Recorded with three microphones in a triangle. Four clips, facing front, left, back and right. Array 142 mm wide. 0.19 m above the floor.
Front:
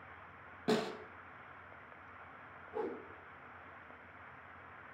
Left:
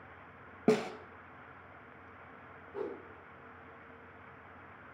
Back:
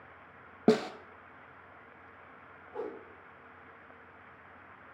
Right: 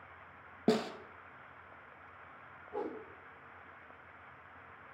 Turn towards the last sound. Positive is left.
turn(degrees=-100)